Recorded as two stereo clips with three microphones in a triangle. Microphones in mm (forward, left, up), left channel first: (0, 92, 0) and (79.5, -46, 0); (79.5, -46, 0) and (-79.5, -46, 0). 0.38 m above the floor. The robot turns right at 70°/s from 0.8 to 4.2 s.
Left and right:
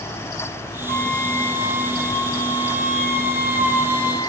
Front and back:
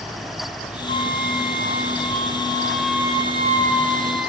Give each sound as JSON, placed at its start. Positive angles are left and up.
{"t": 0.9, "sound": "a flute", "azimuth_deg": -50, "distance_m": 2.5}